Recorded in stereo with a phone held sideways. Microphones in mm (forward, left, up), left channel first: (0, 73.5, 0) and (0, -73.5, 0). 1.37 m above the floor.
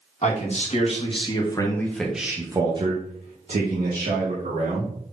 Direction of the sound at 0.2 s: 55° left (ahead or behind).